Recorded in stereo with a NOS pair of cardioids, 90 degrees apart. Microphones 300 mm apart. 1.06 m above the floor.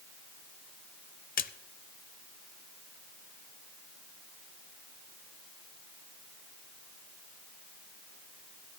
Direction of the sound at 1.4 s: 30° left.